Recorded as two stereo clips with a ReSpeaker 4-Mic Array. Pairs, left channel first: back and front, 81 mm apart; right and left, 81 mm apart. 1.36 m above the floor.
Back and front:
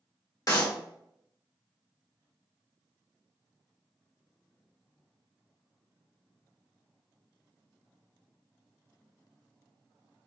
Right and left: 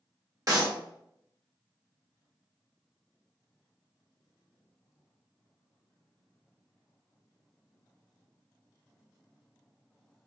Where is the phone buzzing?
No phone buzzing in this recording.